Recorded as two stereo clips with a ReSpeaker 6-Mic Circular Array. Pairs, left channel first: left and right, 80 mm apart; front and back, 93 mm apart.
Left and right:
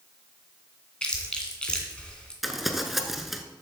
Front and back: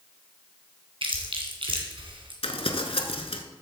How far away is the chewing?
About 2 m.